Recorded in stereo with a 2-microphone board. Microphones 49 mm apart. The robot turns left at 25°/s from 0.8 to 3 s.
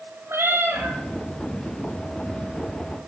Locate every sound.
0.3 s a cat meowing: 65° right (ahead or behind), 1.7 m